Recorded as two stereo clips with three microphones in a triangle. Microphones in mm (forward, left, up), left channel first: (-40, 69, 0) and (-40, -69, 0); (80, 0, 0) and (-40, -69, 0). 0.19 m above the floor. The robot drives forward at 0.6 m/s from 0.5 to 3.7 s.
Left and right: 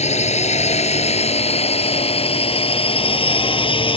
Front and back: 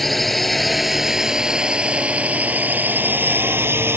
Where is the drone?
120° left; by 4.0 s 135° left.